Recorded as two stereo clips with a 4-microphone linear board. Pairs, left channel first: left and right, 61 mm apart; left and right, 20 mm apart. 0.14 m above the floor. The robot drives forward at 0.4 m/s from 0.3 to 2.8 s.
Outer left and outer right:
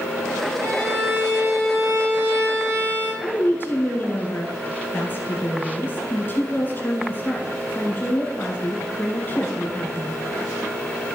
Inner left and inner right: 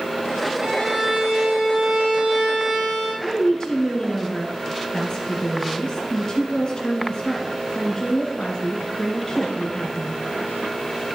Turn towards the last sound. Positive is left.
turn(degrees=35)  # may be behind; listen again after turning